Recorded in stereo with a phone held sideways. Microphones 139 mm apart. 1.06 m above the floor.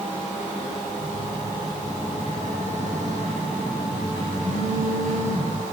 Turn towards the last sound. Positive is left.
turn(degrees=-70)  # may be behind; listen again after turning